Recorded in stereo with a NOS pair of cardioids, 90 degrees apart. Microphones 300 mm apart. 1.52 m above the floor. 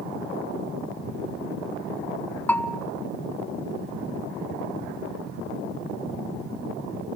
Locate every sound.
2.5 s a bell: 5° left, 0.8 m